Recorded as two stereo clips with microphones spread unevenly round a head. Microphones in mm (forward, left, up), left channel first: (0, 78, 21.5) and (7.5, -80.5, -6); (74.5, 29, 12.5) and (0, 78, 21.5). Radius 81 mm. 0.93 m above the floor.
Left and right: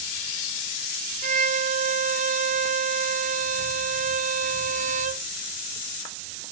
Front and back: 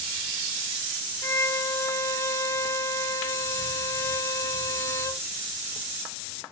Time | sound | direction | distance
1.2 | a violin | 90° right | 0.6 m